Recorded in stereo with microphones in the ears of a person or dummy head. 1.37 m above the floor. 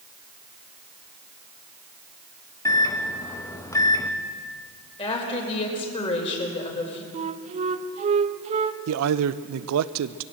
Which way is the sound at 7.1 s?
35° right (ahead or behind).